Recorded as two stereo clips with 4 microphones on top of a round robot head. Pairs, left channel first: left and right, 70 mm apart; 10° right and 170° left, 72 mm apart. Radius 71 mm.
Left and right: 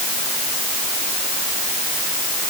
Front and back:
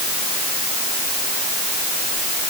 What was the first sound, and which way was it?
Only background noise.